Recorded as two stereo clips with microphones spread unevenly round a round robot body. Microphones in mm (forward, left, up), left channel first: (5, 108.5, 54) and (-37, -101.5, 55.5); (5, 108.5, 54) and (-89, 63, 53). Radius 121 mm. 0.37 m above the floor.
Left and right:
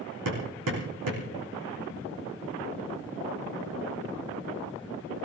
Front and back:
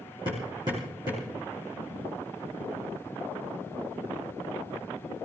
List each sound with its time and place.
0.2 s hammering: 90° right, 5.5 m